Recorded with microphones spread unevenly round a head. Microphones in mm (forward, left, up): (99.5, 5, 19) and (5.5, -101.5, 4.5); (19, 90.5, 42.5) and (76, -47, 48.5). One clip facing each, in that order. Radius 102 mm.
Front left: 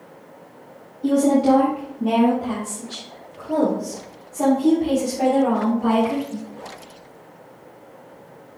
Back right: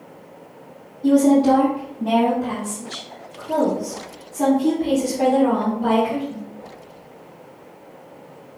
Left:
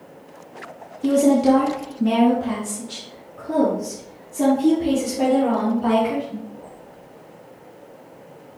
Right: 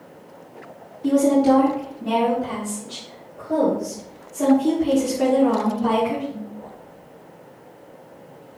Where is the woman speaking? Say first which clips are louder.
Back right 2 dB, left 1 dB; 125° left, 1.5 m; by 6.4 s 140° left, 4 m.